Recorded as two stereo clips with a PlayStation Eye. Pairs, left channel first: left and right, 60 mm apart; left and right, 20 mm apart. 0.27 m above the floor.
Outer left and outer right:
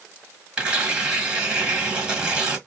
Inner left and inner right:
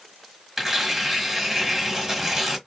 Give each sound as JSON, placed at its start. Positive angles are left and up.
{"t": 0.6, "sound": "tearing paper", "side_deg": -15, "distance_m": 1.4}